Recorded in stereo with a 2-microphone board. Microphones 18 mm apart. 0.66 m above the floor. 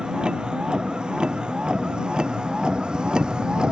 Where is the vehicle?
60° right (ahead or behind); by 3.7 s 55° right (ahead or behind).